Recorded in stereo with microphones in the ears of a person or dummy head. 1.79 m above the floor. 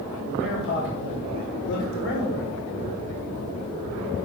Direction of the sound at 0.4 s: 65° left (ahead or behind).